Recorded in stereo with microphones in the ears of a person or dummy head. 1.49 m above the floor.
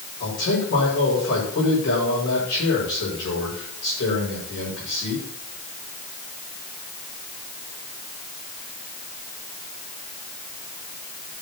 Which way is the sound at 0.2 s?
65° left (ahead or behind).